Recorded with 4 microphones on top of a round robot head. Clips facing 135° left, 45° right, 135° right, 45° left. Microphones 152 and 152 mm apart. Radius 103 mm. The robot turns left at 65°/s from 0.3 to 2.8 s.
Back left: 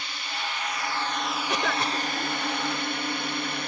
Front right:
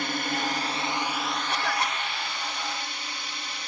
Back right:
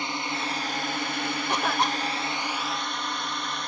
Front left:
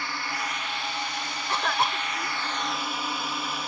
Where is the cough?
150° left; by 2.4 s 90° left.